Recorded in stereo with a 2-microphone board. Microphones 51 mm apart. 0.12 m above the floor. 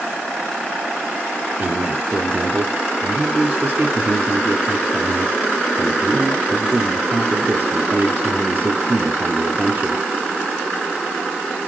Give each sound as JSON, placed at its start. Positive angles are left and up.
{"t": 1.6, "sound": "a man speaking", "side_deg": -45, "distance_m": 2.5}